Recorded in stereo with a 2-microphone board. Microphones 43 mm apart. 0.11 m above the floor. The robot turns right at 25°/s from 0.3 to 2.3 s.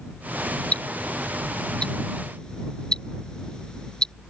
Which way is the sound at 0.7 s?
35° left (ahead or behind).